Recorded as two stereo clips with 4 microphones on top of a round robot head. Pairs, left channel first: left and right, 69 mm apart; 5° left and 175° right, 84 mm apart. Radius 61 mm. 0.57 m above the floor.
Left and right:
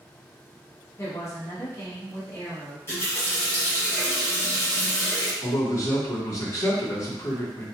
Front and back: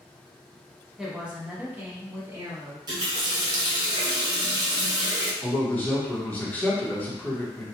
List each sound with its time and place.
1.0 s a woman speaking: 100° left, 1.0 m; by 2.8 s 140° left, 1.8 m
2.9 s a running tap: 150° left, 0.9 m
5.4 s a man speaking: 70° left, 1.2 m